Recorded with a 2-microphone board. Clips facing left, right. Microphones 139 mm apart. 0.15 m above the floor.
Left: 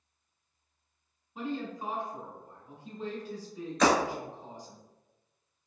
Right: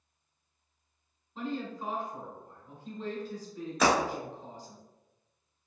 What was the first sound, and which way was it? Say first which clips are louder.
A woman speaking: even; 15° left (ahead or behind).